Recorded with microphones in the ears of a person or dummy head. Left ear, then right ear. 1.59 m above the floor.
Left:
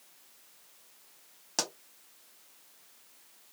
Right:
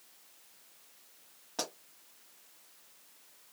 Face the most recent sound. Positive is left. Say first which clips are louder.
# left 4 dB
turn(degrees=80)